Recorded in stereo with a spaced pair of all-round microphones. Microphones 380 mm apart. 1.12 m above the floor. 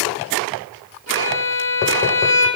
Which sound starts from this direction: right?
A violin, at 1.1 s.